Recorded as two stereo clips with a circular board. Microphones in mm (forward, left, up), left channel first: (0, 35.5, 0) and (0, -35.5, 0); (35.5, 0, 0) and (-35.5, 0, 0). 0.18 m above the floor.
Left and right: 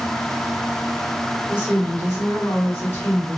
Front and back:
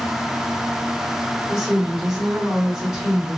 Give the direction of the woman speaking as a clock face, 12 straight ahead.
9 o'clock.